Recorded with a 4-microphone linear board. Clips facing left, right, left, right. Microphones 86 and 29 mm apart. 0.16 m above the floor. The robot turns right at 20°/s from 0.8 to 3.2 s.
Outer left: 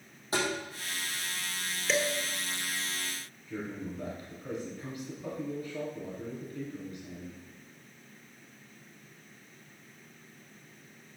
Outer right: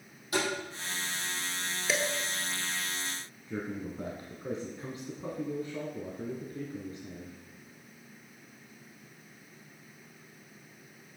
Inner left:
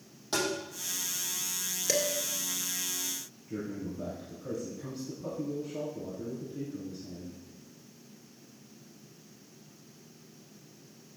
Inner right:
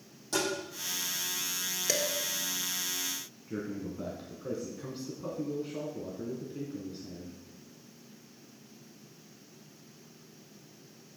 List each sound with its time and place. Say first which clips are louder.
0.3 s tapping: even, even; 30° left (ahead or behind), 4.5 m
1.9 s dishes clattering: outer left 2 dB, inner left 2 dB; 5° right (ahead or behind), 1.9 m
3.5 s a man speaking: outer right 1 dB, even; 30° right (ahead or behind), 1.6 m